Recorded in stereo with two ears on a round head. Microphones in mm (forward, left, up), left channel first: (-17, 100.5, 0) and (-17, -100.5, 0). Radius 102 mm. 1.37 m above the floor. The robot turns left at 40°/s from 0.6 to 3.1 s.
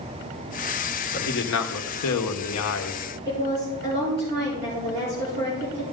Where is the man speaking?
130° left, 1.2 m; by 3.0 s 55° left, 1.2 m.